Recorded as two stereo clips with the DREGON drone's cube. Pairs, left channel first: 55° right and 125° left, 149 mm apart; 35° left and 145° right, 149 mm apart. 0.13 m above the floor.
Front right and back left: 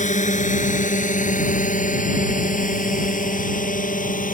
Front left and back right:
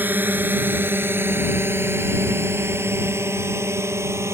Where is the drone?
70° right; by 4.3 s 75° right.